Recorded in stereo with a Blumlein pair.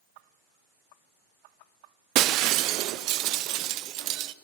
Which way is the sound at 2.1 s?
40° right.